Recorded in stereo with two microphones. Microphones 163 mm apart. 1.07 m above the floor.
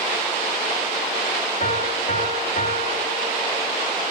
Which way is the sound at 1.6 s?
55° left (ahead or behind).